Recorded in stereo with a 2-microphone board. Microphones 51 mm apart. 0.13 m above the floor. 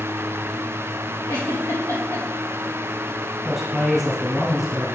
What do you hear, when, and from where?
1.3 s a giggle: 70° left (ahead or behind), 3.5 m
3.5 s a man speaking: centre (ahead or behind), 3.5 m